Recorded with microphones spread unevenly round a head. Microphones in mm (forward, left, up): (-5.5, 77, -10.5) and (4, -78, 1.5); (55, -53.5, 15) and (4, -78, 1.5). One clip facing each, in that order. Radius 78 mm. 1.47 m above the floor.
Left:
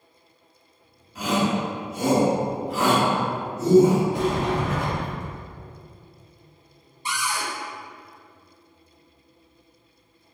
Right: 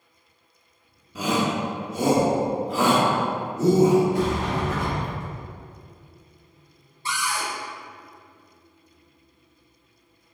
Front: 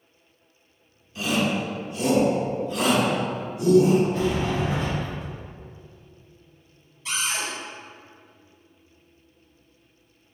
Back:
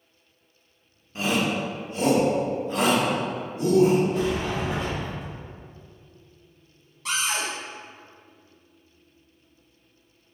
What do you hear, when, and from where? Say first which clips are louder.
1.1 s a shout: left 1 dB, even; 95° right, 1.0 m
4.1 s a sliding door: left 1 dB, front 1 dB; 80° left, 2.0 m
7.0 s a cupboard door: even, back 1 dB; 165° left, 0.8 m